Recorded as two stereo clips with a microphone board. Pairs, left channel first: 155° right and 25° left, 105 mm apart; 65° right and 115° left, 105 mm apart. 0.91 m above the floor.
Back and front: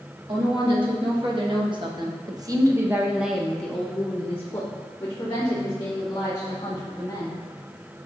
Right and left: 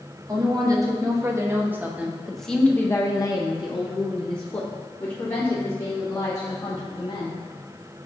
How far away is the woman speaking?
About 1.8 m.